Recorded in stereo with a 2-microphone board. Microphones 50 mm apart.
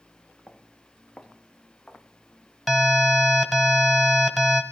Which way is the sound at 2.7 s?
Centre (ahead or behind).